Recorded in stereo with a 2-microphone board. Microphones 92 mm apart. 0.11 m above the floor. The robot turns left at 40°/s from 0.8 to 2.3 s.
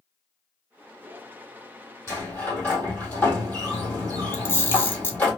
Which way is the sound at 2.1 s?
30° left (ahead or behind).